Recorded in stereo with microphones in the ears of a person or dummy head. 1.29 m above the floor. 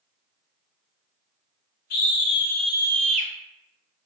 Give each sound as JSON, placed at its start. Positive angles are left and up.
{"t": 1.9, "sound": "a scream", "side_deg": 55, "distance_m": 0.7}